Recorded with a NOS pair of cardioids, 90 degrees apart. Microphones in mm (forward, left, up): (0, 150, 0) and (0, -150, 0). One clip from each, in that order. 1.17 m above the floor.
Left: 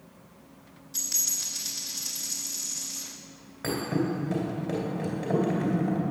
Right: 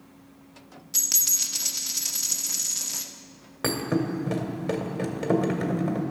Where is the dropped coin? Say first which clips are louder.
Right 5 dB; 70° right, 1.3 m.